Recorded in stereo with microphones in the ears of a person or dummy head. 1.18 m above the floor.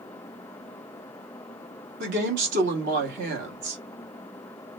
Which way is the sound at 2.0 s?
50° right (ahead or behind).